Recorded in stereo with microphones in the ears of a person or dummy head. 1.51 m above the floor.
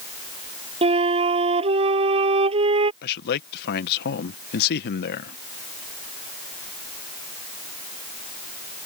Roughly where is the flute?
Right.